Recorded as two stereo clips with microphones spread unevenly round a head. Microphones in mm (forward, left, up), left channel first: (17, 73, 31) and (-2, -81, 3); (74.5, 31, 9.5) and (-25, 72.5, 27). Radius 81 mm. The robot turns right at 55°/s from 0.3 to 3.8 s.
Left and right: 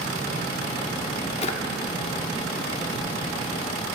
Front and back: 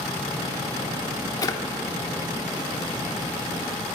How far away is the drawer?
About 1.0 m.